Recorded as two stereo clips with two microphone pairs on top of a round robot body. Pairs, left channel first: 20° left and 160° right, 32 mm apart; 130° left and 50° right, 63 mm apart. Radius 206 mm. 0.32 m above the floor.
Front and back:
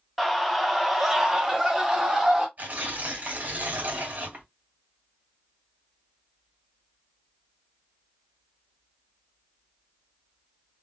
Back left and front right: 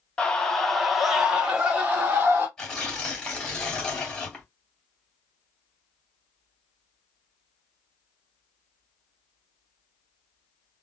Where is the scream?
115° left, 1.5 m; by 2.5 s 110° right, 1.9 m.